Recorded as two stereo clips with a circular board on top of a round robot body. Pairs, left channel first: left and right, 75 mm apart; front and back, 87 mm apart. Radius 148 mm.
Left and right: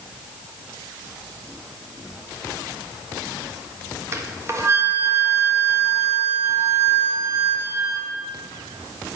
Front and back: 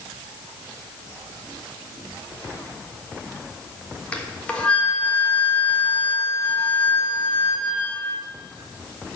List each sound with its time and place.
4.1 s a flute: 70° right, 1.4 m